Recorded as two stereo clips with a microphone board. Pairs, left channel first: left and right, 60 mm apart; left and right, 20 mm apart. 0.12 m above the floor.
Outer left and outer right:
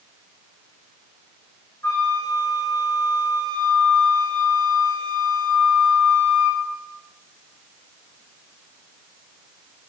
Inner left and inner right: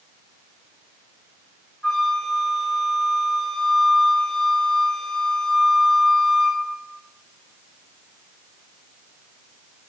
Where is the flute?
45° left (ahead or behind), 7 m.